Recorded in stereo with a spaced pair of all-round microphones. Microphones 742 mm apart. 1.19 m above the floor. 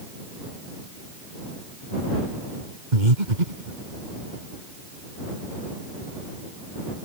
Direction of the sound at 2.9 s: 85° right.